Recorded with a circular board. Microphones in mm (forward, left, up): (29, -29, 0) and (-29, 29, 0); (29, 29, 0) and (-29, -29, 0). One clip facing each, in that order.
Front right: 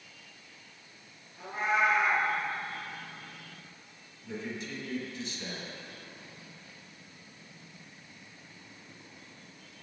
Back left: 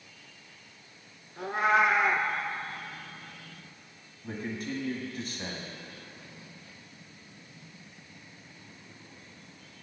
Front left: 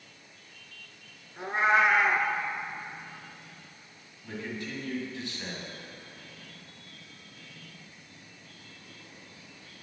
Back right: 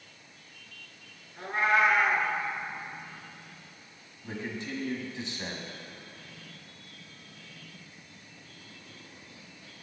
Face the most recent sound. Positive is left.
turn(degrees=160)